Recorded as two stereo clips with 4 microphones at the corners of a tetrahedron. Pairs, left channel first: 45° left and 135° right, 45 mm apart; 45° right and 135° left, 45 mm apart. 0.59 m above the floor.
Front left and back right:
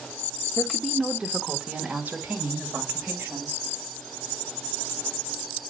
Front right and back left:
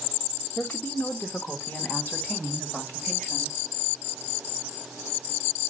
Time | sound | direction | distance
0.6 | a woman speaking | 45° right | 0.9 m